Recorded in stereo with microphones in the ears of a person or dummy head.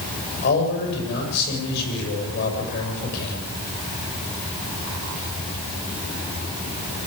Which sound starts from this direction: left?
A man speaking, at 0.4 s.